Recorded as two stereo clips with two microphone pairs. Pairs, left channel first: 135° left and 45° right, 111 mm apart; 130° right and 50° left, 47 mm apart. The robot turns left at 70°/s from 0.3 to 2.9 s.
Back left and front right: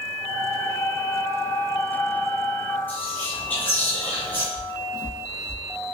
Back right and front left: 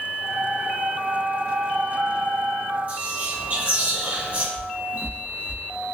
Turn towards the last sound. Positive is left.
turn(degrees=75)